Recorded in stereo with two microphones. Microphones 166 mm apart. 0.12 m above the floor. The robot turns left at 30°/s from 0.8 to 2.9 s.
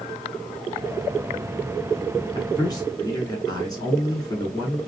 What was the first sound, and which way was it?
A man speaking, 25° left (ahead or behind).